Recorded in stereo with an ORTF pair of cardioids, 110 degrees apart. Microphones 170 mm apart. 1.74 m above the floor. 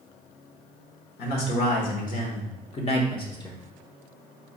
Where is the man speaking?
65° left, 1.7 m; by 3.5 s 20° left, 1.3 m.